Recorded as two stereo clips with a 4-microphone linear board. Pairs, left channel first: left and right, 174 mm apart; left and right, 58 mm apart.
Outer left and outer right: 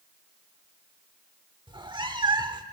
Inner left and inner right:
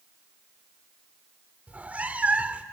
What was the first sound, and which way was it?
A cat meowing, 25° right (ahead or behind).